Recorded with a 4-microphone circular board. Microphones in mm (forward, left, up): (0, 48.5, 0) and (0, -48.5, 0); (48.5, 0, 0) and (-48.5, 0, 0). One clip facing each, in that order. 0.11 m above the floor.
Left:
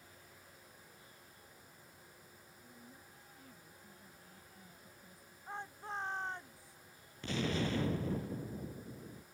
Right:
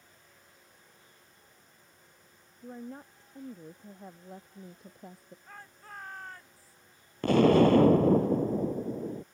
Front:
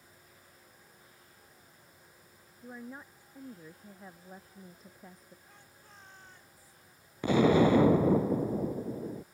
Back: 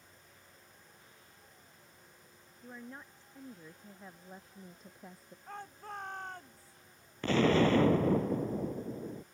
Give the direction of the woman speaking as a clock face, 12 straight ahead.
3 o'clock.